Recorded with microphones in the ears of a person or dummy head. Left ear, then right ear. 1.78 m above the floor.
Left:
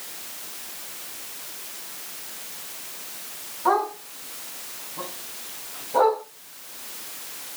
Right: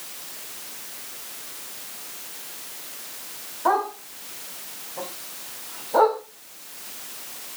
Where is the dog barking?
15° right (ahead or behind), 4.5 m; by 6.2 s 45° right (ahead or behind), 4 m.